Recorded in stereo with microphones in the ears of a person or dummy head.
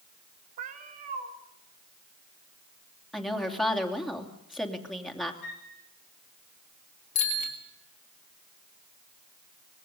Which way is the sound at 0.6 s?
40° right (ahead or behind).